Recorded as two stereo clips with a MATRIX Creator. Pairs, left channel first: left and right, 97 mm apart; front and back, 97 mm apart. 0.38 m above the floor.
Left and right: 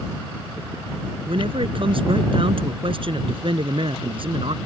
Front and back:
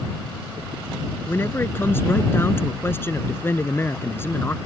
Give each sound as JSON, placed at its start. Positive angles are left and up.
{"t": 1.3, "sound": "a man speaking", "azimuth_deg": -65}